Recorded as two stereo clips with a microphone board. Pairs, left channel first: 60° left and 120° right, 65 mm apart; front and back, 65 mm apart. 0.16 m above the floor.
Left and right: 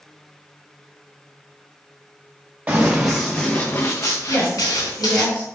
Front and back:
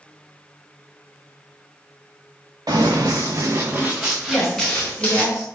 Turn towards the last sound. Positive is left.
turn(degrees=110)